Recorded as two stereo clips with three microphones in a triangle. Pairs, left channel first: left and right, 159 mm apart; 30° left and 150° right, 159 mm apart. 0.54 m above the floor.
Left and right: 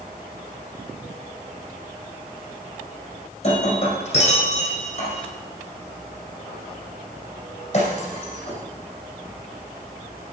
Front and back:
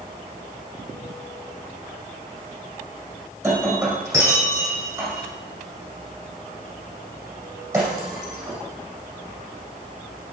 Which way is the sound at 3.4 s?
140° left.